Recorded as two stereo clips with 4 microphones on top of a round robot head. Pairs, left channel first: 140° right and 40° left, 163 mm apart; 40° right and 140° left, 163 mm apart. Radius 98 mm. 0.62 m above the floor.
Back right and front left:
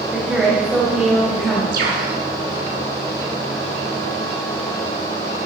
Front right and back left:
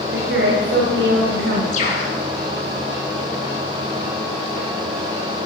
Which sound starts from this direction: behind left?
A woman speaking, at 0.1 s.